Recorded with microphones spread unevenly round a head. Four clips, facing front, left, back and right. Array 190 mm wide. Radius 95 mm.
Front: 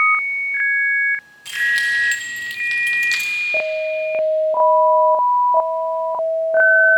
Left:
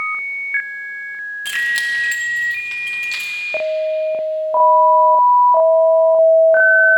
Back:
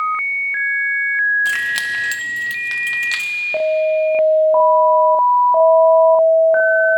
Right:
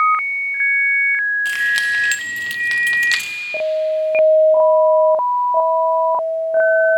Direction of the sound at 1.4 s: 175° left.